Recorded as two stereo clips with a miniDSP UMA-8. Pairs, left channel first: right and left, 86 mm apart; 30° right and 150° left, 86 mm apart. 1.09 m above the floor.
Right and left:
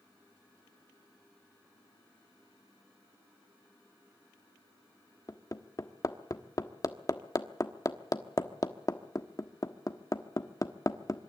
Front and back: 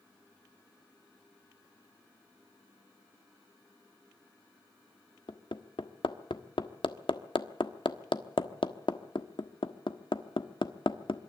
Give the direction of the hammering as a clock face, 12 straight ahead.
1 o'clock.